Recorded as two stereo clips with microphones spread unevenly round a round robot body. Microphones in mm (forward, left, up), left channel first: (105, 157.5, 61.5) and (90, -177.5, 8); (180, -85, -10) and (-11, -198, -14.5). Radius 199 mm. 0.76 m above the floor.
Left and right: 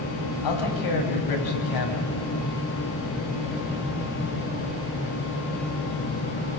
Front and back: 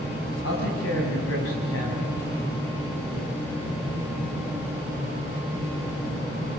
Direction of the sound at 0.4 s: 75° left.